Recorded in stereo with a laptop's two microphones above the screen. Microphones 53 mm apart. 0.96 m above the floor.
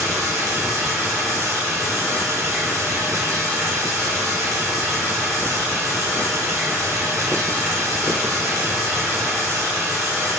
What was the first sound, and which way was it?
Running water, 60° right (ahead or behind).